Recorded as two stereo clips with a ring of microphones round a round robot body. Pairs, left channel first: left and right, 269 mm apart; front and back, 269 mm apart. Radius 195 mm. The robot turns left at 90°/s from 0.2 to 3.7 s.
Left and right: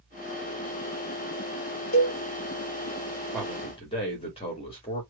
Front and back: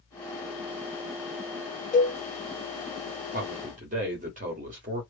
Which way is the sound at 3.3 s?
Straight behind.